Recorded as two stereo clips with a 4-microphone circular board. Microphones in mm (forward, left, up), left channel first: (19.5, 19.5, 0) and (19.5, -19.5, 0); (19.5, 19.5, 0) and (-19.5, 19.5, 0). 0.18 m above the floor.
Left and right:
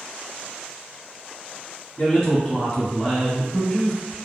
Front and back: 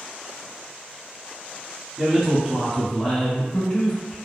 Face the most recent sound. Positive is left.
turn(degrees=-30)